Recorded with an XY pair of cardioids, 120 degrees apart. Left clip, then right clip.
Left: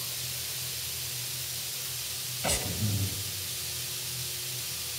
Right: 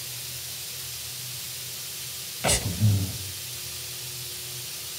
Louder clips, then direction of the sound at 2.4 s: Right 6 dB; 45° right.